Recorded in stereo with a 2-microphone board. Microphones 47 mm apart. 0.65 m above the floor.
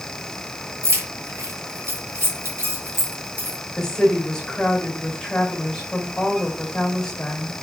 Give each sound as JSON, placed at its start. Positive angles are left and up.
{"t": 0.8, "sound": "keys jangling", "side_deg": -75, "distance_m": 4.5}
{"t": 3.8, "sound": "a woman speaking", "side_deg": 10, "distance_m": 3.5}